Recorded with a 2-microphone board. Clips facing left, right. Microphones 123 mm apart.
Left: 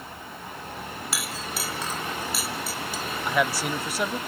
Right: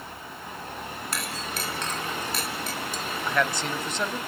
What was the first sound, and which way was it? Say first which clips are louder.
A clink: even; 5° left (ahead or behind).